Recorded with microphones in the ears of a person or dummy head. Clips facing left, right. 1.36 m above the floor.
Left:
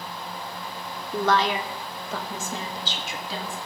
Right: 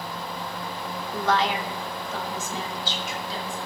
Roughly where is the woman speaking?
Left.